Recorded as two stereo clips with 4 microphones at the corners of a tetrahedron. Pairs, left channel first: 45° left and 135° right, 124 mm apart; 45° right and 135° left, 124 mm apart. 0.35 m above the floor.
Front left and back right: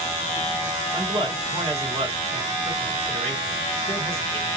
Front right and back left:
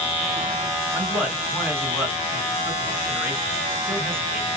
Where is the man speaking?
155° right, 2.5 m.